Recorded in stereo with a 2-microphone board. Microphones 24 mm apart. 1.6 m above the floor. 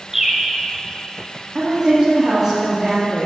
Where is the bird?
15° right (ahead or behind), 1.4 m.